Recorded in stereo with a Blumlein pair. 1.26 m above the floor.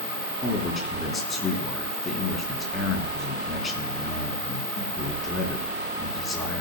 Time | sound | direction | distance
0.4 | a man speaking | 20° left | 3.5 m